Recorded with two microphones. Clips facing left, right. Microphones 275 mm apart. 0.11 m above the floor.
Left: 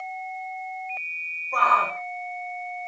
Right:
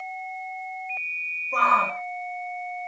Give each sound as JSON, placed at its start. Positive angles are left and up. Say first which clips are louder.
{"t": 1.5, "sound": "a shout", "louder": "even", "side_deg": -30, "distance_m": 6.0}